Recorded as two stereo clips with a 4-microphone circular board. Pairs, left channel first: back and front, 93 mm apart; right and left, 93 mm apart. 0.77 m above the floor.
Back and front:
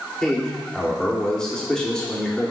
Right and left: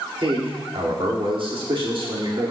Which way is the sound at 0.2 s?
100° left.